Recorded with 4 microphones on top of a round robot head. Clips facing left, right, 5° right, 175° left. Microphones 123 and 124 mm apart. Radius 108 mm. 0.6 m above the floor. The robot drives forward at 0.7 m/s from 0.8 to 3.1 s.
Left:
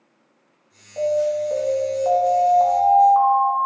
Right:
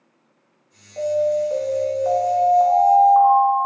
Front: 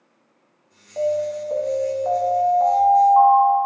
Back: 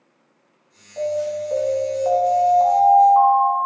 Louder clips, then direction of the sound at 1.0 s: Right 1 dB, front 1 dB; 15° left.